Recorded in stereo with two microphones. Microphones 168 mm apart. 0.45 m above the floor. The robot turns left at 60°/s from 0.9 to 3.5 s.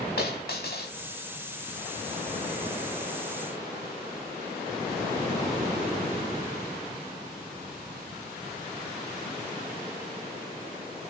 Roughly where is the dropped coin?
Left.